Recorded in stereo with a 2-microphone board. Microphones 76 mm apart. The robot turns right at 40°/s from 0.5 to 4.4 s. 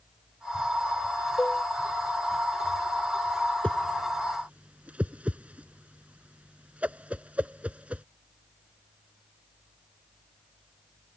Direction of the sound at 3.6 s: 15° left (ahead or behind).